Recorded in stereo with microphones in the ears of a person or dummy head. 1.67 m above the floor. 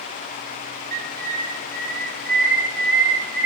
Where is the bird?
50° right (ahead or behind), 1.6 m.